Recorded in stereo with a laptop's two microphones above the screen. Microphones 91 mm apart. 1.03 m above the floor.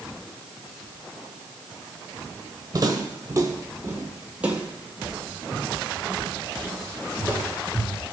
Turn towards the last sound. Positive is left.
turn(degrees=20)  # may be behind; listen again after turning